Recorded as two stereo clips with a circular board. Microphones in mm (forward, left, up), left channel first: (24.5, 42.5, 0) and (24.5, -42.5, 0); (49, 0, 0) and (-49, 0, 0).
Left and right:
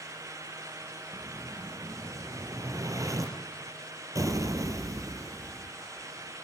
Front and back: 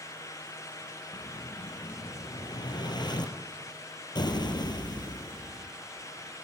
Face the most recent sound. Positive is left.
turn(degrees=-40)